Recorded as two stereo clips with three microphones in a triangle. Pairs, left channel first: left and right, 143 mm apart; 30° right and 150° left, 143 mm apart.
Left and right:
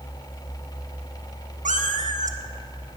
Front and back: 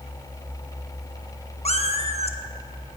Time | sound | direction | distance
1.6 | a cat meowing | 70° right | 1.0 m